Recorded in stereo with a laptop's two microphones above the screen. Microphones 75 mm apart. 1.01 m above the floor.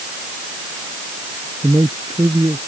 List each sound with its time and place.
1.6 s a man speaking: 70° right (ahead or behind)